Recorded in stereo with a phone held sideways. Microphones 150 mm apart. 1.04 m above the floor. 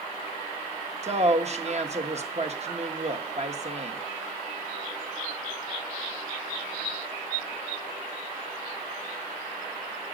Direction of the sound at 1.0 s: 45° right (ahead or behind).